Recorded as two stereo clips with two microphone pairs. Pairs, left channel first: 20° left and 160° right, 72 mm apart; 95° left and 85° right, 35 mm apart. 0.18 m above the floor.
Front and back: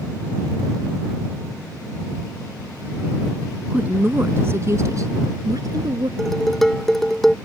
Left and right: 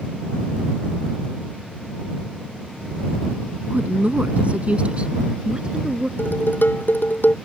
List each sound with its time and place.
3.7 s a woman speaking: 100° right; by 6.1 s 145° right
6.2 s dishes clattering: 105° left